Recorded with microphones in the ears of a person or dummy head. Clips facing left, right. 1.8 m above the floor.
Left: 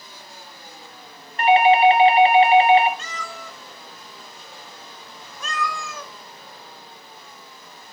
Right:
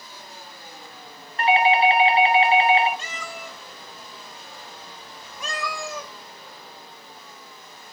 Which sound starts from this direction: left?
A doorbell, at 1.4 s.